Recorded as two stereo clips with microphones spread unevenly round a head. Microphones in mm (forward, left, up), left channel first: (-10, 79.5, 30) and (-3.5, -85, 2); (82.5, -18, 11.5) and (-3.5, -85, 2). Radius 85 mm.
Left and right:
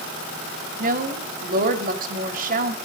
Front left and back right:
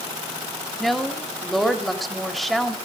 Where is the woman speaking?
50° right, 2.5 m.